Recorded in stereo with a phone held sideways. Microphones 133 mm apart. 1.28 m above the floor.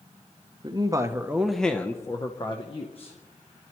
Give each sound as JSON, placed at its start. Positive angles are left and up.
{"t": 0.6, "sound": "a man speaking", "side_deg": -35, "distance_m": 0.9}